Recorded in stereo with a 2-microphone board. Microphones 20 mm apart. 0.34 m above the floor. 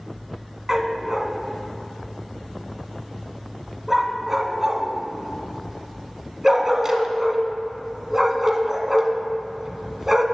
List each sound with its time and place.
0.7 s a dog barking: 20° right (ahead or behind), 0.7 m